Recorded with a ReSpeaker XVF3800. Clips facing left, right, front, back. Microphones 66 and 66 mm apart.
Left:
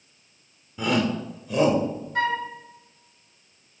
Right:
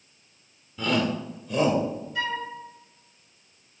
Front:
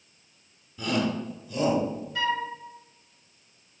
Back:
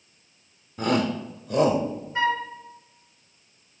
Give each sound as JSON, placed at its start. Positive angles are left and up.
{"t": 0.8, "sound": "a shout", "azimuth_deg": 165, "distance_m": 1.7}
{"t": 2.1, "sound": "a flute", "azimuth_deg": 125, "distance_m": 1.9}